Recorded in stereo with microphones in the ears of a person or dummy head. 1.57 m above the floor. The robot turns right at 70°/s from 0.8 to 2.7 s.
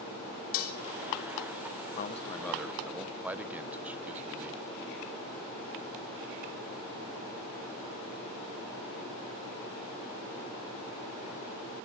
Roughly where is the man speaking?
Behind left.